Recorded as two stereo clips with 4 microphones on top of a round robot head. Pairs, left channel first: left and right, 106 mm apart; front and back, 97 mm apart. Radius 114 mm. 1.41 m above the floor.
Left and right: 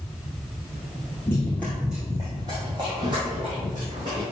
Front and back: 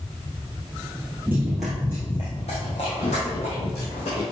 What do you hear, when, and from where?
1.3 s running footsteps: 135° left, 1.5 m; by 4.2 s 30° right, 4 m